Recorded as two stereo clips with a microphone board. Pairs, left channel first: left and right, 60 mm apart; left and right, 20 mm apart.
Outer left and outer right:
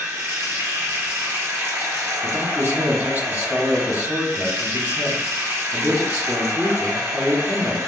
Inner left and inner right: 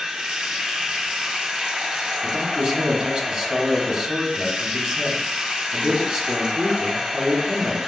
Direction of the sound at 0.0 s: 40° right (ahead or behind).